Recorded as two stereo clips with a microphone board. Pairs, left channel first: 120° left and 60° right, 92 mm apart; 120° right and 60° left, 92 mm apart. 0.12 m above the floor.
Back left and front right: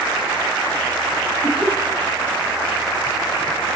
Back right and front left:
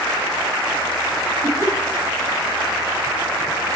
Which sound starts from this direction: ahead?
Laughter, at 1.4 s.